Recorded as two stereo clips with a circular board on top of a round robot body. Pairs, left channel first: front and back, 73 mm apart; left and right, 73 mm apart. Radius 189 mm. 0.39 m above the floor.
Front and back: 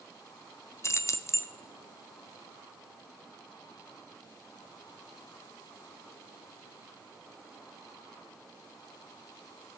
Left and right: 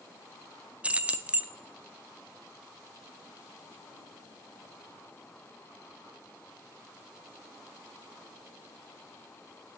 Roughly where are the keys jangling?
Ahead right.